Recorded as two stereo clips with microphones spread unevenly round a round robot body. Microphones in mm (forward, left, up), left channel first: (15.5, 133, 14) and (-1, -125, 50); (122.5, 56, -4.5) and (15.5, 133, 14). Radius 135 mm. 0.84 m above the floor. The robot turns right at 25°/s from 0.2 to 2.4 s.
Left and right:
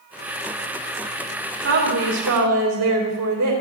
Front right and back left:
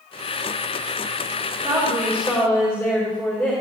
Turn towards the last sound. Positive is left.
turn(degrees=-120)